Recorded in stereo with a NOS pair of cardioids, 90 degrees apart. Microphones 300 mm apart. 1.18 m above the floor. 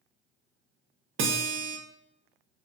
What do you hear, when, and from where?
1.2 s a guitar: 45° right, 0.6 m